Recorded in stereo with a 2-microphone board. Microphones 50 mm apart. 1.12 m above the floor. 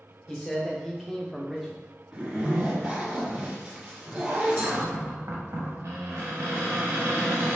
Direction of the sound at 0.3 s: 10° left (ahead or behind).